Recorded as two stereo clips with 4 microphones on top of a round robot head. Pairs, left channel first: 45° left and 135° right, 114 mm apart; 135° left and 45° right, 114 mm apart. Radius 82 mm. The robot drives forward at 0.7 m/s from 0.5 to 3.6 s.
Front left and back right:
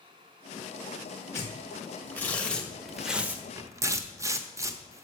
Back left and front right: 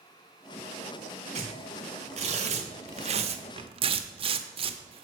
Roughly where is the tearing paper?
Ahead.